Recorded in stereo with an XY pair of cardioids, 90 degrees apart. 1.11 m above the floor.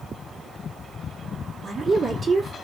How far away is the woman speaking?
About 1.7 m.